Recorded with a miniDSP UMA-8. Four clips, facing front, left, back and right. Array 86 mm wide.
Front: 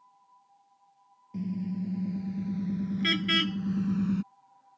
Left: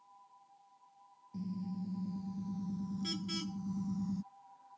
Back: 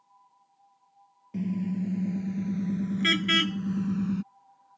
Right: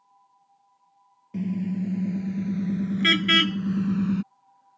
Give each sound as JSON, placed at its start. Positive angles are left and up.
{"t": 1.3, "sound": "a car horn", "azimuth_deg": -115}